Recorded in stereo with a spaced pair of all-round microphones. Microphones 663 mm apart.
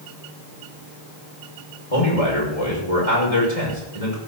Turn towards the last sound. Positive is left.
turn(degrees=60)  # may be behind; listen again after turning